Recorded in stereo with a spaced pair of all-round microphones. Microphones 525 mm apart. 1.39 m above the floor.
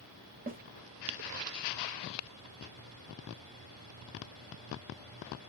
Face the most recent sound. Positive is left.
turn(degrees=-20)  # may be behind; listen again after turning